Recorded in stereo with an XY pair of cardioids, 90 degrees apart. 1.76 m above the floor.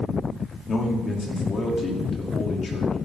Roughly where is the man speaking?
Ahead left.